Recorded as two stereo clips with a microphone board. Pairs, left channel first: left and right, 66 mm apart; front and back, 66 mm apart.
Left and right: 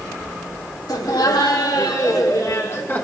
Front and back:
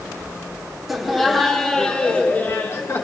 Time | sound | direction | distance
0.9 | laughter | 90° left | 2 m